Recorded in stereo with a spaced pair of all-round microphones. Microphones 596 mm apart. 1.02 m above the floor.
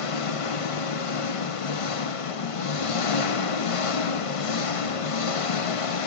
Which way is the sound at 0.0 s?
65° left (ahead or behind).